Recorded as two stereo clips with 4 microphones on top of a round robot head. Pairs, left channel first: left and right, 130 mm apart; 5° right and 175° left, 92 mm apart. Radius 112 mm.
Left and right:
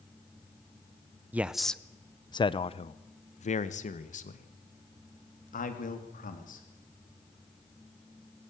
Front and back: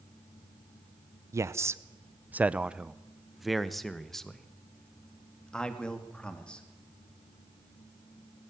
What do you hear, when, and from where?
1.3 s a man speaking: 160° right, 0.8 m; by 6.6 s 75° left, 3 m